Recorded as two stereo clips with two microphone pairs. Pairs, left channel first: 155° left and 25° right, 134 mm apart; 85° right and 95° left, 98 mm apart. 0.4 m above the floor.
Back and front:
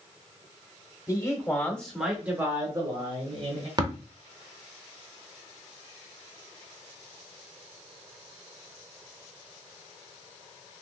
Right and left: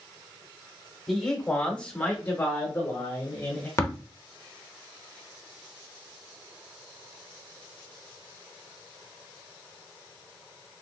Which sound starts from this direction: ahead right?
Tapping, at 3.8 s.